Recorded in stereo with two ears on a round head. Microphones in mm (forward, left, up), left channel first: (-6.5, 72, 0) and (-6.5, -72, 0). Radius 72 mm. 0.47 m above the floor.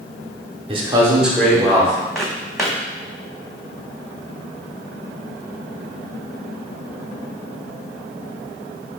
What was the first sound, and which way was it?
A man speaking, 35° right (ahead or behind).